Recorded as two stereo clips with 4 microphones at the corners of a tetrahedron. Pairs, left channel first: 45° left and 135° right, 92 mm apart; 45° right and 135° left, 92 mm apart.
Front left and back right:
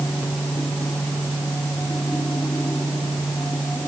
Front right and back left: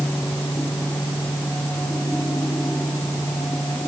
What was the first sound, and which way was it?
Only background noise.